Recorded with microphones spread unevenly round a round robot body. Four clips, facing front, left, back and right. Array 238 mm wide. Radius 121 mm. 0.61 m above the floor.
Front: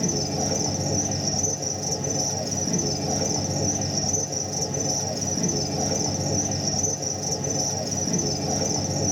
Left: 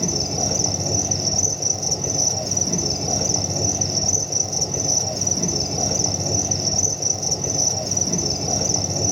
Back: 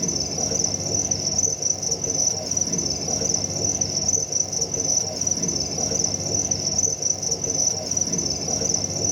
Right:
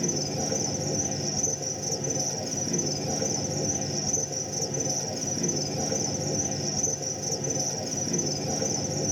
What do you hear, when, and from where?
0.0 s an insect: 75° left, 1.1 m